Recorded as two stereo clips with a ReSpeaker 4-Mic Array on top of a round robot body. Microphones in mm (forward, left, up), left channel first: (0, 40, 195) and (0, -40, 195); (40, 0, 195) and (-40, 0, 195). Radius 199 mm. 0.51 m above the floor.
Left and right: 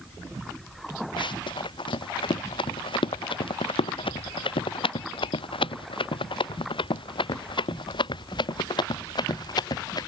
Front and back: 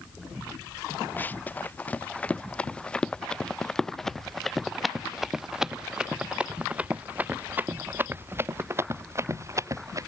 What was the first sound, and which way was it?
Running footsteps, 70° left.